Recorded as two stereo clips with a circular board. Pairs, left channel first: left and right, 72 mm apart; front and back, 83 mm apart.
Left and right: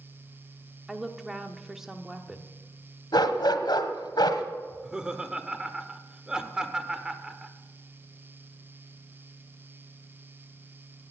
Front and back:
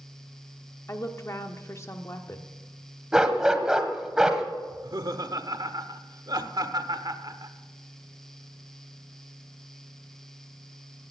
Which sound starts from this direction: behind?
Laughter, at 4.7 s.